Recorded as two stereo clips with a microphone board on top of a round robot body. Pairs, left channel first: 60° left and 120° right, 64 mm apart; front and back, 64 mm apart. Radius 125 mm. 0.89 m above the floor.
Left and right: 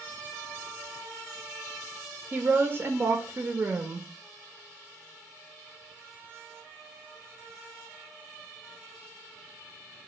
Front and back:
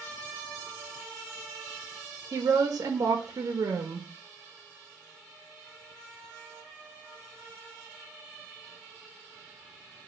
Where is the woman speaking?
165° right, 0.6 m.